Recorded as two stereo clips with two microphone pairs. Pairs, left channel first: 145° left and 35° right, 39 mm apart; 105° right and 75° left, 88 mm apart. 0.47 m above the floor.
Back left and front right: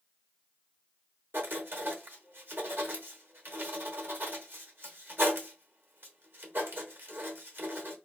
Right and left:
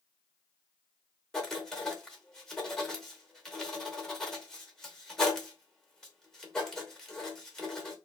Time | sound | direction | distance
1.3 | writing | 20° right | 0.8 m